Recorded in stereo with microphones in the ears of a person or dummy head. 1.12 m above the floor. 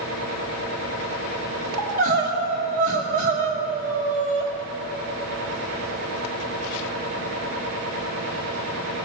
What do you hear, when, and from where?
0.0 s a machine running: 70° right (ahead or behind), 3.5 m
1.8 s crying: 50° right (ahead or behind), 2 m